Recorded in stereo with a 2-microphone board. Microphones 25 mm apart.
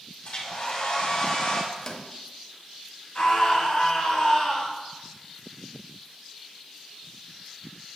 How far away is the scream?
About 2.0 m.